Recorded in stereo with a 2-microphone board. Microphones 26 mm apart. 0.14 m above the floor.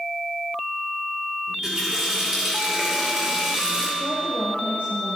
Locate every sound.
1.5 s a running tap: 20° right (ahead or behind), 7.5 m
4.0 s a woman speaking: 70° right (ahead or behind), 6.5 m